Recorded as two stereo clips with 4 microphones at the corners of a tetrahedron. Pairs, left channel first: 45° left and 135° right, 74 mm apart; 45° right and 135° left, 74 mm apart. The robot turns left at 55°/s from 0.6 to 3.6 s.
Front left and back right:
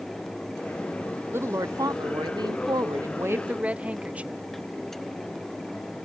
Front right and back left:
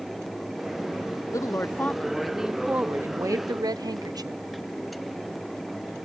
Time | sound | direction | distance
1.3 | a woman speaking | 80° right | ?